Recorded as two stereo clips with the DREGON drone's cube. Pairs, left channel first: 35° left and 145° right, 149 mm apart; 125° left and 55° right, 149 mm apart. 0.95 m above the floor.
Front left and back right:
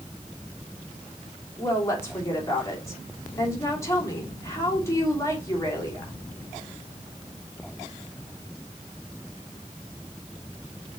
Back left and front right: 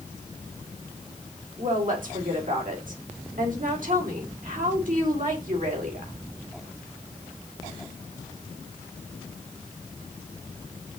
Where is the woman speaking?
35° right, 3 m.